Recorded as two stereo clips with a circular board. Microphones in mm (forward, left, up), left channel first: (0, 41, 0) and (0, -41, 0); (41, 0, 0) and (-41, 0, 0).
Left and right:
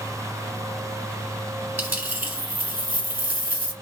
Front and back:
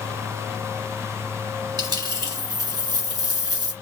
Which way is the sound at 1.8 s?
160° right.